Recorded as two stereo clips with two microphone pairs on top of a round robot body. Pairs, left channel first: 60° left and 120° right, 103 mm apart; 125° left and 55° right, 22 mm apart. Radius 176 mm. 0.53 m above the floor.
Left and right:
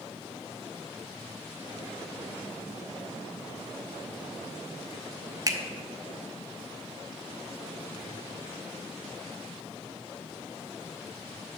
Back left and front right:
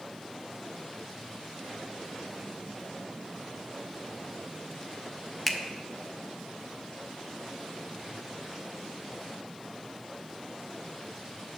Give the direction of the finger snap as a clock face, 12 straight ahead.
5 o'clock.